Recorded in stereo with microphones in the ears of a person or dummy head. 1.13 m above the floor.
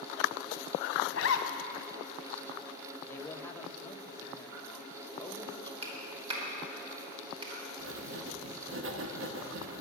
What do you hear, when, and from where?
1.1 s a zipper: 60° left (ahead or behind), 0.9 m
3.1 s a man speaking: 20° left (ahead or behind), 0.9 m
5.8 s a clap: 30° right (ahead or behind), 2.5 m
7.8 s writing: 55° right (ahead or behind), 0.8 m